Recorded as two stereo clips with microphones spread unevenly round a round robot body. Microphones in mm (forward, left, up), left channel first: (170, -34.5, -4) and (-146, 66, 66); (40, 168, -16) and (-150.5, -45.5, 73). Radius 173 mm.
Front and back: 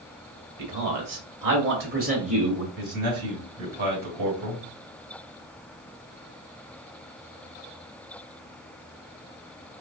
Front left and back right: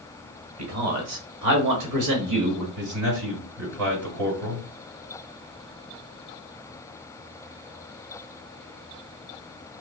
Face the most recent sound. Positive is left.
turn(degrees=-130)